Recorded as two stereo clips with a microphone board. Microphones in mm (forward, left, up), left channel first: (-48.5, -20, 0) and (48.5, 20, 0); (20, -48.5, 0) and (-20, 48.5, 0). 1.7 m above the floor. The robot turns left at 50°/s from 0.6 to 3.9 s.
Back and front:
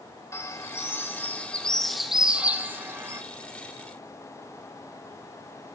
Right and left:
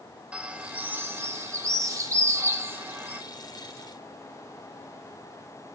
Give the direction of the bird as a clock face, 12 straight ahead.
6 o'clock.